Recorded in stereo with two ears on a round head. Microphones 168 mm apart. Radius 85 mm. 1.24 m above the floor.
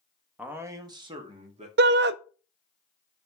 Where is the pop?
I don't hear a pop.